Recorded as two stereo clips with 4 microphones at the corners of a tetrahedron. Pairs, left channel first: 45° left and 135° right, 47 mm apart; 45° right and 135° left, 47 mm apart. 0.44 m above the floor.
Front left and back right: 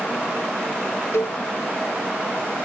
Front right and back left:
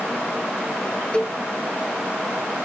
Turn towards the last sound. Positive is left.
turn(degrees=20)